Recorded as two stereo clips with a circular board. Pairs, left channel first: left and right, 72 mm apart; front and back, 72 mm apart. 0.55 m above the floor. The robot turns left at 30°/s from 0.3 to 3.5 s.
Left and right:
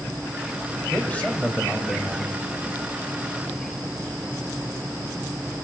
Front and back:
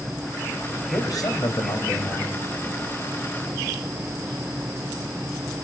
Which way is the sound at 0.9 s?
30° left.